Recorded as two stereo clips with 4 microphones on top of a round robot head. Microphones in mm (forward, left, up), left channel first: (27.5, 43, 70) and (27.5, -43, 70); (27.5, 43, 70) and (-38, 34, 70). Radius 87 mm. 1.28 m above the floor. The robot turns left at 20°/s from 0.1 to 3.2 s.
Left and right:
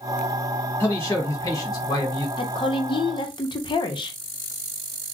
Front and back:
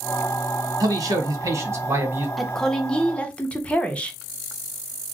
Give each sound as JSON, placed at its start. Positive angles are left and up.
{"t": 0.8, "sound": "a man speaking", "azimuth_deg": 160, "distance_m": 1.4}
{"t": 2.4, "sound": "a woman speaking", "azimuth_deg": 95, "distance_m": 0.9}